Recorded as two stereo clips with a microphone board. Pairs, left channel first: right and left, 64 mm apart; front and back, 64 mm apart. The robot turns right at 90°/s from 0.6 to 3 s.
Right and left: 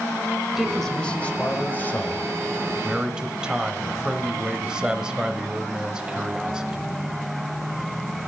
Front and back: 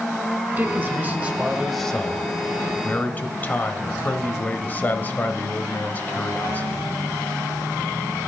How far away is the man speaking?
About 1.0 m.